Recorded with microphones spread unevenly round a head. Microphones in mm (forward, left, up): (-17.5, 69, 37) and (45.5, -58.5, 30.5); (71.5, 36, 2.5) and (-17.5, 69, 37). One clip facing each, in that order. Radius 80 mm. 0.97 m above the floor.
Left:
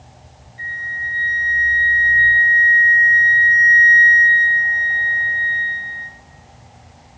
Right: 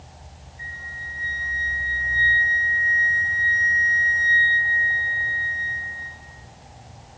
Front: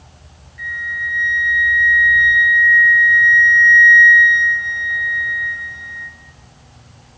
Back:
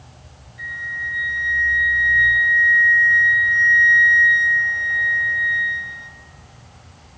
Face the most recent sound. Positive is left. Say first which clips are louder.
# left 9 dB, front 4 dB
turn(degrees=100)